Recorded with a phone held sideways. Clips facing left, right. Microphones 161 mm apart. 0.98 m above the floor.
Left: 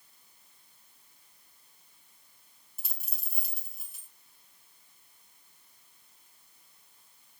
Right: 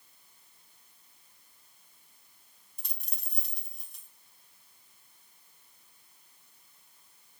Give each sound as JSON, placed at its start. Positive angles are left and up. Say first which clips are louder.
{"t": 2.8, "sound": "a dropped coin", "louder": "even", "side_deg": 5, "distance_m": 3.5}